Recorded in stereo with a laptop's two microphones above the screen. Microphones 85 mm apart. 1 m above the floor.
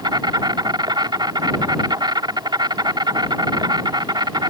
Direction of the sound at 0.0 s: 60° right (ahead or behind).